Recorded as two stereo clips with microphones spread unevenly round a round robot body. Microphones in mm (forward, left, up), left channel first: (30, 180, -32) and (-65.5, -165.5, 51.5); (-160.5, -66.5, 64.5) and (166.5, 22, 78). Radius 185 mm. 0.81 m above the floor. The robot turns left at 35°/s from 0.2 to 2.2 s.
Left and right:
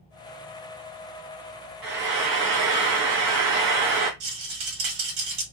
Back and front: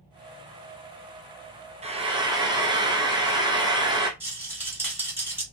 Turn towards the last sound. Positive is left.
turn(degrees=-70)